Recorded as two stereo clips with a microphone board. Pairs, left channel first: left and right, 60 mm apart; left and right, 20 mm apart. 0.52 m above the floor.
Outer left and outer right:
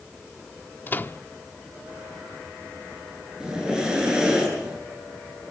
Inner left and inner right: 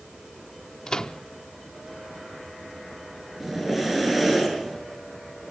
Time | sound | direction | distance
0.9 | a microwave | 35° left (ahead or behind) | 0.6 m
3.4 | breathing | 15° right (ahead or behind) | 9 m